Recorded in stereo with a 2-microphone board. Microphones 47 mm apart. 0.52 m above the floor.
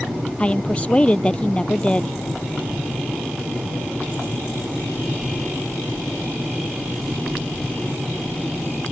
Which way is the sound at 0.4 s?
25° left (ahead or behind).